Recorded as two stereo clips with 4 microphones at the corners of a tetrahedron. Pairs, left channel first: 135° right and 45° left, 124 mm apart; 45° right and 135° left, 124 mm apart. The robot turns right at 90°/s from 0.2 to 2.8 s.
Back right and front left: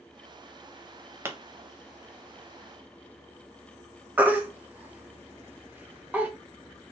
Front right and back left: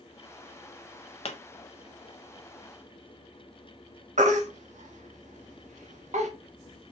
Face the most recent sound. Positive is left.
turn(degrees=120)